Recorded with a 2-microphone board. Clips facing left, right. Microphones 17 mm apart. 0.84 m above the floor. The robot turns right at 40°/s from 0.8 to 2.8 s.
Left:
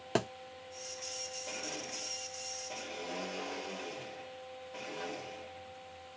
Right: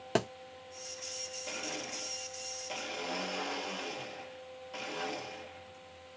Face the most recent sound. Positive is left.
turn(degrees=-100)